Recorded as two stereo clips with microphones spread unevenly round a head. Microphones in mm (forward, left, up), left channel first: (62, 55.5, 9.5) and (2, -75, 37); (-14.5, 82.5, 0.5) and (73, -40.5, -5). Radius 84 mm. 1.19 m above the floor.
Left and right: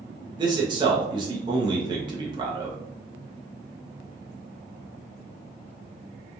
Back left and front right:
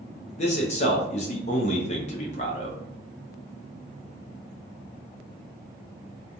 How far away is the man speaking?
About 0.6 m.